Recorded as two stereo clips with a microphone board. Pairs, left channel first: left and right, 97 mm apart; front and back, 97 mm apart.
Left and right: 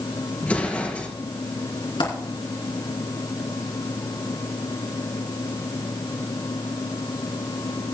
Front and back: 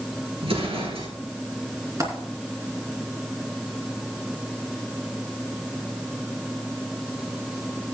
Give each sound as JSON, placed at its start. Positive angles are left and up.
{"t": 0.4, "sound": "an explosion", "azimuth_deg": 165, "distance_m": 2.5}
{"t": 2.0, "sound": "a dropped coin", "azimuth_deg": 125, "distance_m": 3.0}